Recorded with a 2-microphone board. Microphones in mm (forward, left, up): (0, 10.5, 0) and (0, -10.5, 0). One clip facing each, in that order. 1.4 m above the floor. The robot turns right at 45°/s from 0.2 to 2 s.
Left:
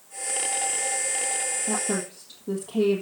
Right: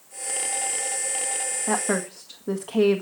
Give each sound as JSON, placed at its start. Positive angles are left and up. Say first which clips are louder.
{"t": 1.7, "sound": "a woman speaking", "louder": "right 6 dB", "side_deg": -85, "distance_m": 1.6}